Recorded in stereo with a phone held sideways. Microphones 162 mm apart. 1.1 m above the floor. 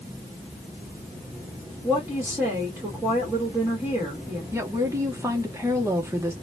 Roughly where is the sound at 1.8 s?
Centre.